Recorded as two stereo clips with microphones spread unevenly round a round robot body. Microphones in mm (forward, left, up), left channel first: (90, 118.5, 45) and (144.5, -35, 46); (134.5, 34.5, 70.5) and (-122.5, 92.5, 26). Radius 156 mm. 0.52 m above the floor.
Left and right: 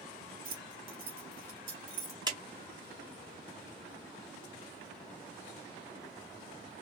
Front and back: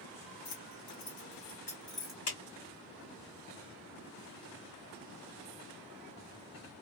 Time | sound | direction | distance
0.5 | keys jangling | 45° right | 1.1 m
2.3 | a clap | 10° right | 1.8 m